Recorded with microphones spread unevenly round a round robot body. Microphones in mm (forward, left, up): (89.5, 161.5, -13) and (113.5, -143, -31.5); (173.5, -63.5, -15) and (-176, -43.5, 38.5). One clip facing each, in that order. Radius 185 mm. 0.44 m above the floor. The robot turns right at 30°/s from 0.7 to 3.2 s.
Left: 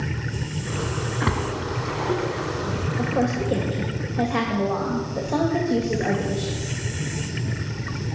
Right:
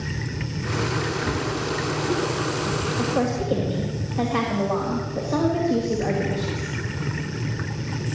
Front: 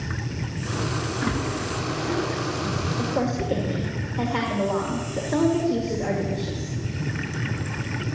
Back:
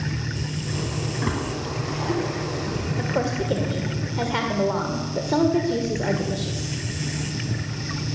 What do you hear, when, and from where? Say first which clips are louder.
1.2 s a splash: even, front 1 dB; 90° left, 2.5 m; by 2.9 s 140° left, 2.5 m
3.0 s a woman speaking: left 1 dB, even; 175° left, 1.9 m; by 6.8 s 175° right, 1.9 m